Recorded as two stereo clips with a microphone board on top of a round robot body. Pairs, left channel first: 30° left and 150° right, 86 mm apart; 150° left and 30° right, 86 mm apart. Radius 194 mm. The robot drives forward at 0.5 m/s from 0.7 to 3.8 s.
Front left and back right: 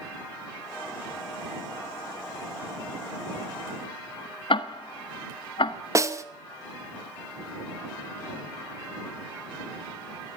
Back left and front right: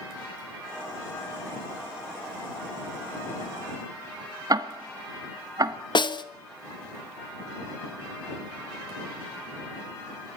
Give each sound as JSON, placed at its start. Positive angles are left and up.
{"t": 4.5, "sound": "ticking", "azimuth_deg": 15, "distance_m": 1.7}
{"t": 6.0, "sound": "a snare drum", "azimuth_deg": 160, "distance_m": 1.5}